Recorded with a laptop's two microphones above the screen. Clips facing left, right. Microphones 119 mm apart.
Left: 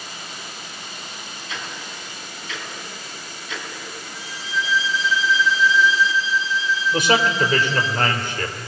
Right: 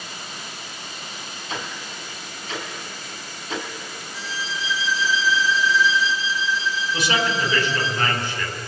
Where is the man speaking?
55° left (ahead or behind), 3 m.